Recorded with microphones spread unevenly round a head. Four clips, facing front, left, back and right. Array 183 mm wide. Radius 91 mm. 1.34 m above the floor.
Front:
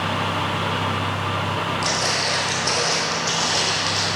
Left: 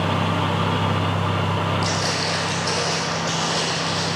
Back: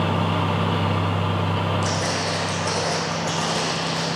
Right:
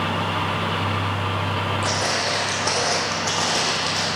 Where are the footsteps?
70° right, 2.5 m; by 4.1 s 100° right, 3 m.